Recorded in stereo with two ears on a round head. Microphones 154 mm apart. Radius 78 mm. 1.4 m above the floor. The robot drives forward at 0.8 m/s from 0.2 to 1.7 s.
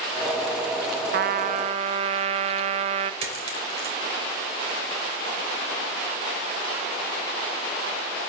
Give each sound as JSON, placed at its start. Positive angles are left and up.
{"t": 1.1, "sound": "a trumpet", "side_deg": -55, "distance_m": 0.5}
{"t": 3.2, "sound": "a dropped coin", "side_deg": -35, "distance_m": 2.5}